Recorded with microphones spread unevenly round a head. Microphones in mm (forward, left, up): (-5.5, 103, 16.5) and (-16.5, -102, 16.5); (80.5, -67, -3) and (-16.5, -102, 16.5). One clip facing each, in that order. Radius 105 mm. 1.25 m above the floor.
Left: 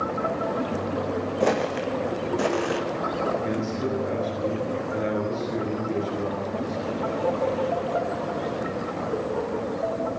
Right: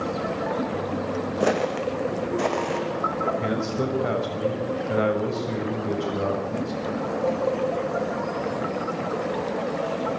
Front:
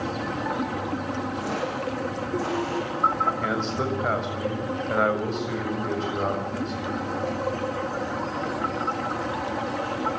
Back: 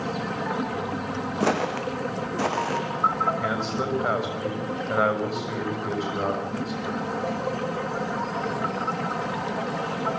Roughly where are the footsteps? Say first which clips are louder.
Right 1 dB, back 4 dB; behind.